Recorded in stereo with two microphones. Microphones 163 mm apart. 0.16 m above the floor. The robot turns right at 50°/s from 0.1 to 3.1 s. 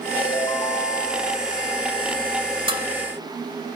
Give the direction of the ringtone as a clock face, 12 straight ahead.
11 o'clock.